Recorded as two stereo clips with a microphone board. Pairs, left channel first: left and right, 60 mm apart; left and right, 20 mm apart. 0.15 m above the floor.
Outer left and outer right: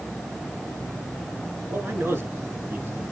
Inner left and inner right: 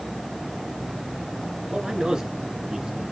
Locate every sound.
1.7 s a man speaking: 35° right (ahead or behind), 2.0 m